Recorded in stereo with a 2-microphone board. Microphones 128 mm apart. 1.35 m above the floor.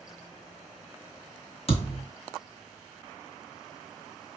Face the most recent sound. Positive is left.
turn(degrees=50)  # may be behind; listen again after turning